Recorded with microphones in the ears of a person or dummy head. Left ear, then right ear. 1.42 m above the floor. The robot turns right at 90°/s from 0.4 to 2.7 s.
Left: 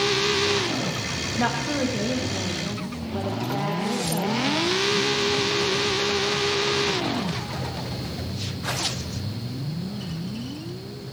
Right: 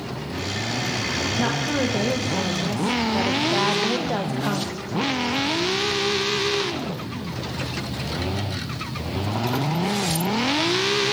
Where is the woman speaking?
160° left, 1.1 m; by 4.8 s 80° right, 1.1 m.